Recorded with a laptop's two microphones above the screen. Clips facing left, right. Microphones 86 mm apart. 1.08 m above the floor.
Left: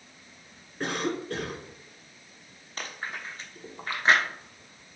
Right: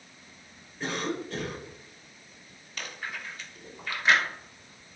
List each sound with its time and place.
0.8 s a cough: 70° left (ahead or behind), 3 m
2.8 s chewing: 40° left (ahead or behind), 1.1 m